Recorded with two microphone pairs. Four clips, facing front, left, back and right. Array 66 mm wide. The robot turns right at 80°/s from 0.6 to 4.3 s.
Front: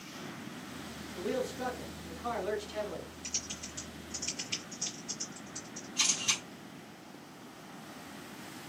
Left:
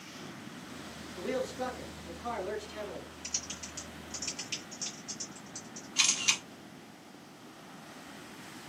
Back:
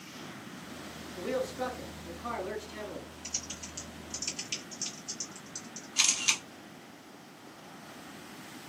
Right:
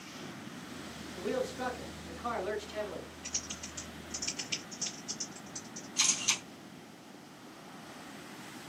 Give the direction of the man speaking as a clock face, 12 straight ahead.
6 o'clock.